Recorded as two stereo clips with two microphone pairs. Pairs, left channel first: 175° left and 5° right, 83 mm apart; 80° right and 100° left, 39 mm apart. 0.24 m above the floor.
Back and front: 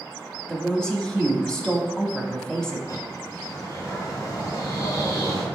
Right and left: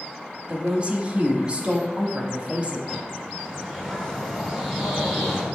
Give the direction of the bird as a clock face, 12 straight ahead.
6 o'clock.